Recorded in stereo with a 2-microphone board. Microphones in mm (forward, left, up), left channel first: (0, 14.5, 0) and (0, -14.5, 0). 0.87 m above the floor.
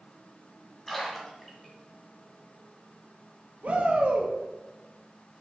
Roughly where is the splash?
Centre.